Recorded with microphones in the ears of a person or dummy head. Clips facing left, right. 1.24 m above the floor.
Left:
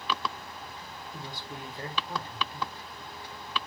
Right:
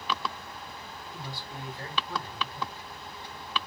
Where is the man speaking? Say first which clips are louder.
Even; 15° left (ahead or behind), 0.8 m.